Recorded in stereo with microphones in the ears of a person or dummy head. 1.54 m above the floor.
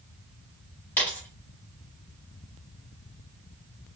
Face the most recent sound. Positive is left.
turn(degrees=10)  # may be behind; listen again after turning